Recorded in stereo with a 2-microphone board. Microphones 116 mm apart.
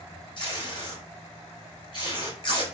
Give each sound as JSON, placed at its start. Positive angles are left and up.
{"t": 0.4, "sound": "tape being pulled", "side_deg": 40, "distance_m": 1.4}